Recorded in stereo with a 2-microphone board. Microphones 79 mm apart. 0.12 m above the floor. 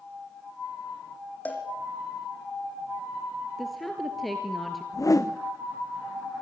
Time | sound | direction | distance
1.4 | a cowbell | 20° left (ahead or behind) | 5 m
3.6 | a woman speaking | centre (ahead or behind) | 2.5 m
4.9 | a whoosh | 45° left (ahead or behind) | 1.4 m